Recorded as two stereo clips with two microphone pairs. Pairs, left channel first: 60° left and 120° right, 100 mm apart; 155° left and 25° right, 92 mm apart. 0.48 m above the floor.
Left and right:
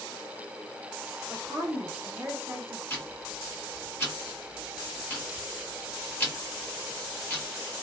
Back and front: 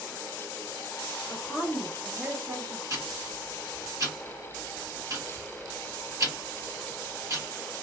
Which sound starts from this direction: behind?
A woman speaking, at 1.3 s.